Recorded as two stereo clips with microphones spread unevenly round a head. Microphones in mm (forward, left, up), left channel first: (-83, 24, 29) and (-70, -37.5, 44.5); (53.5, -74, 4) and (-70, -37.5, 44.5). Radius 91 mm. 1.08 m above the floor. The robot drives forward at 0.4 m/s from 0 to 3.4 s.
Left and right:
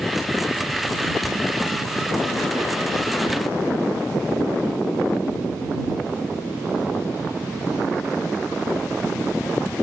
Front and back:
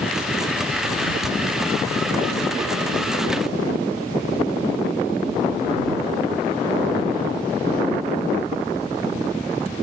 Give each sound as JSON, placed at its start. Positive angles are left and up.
{"t": 1.2, "sound": "ticking", "azimuth_deg": -15}